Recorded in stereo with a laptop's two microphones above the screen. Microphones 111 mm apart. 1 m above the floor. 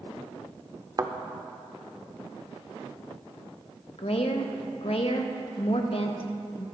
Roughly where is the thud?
Right.